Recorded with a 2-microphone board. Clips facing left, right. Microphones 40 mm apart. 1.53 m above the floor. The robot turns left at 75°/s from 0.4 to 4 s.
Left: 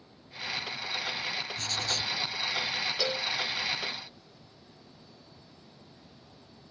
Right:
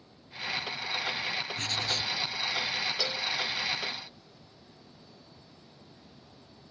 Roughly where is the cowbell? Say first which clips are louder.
Left 1 dB; left.